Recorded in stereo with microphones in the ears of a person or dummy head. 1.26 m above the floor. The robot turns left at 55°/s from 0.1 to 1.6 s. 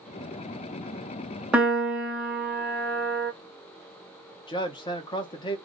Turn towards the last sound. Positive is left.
turn(degrees=20)  # may be behind; listen again after turning